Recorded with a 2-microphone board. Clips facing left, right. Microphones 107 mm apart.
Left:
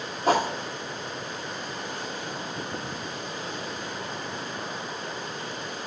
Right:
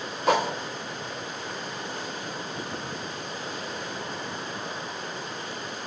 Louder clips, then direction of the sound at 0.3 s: Even; 40° left (ahead or behind).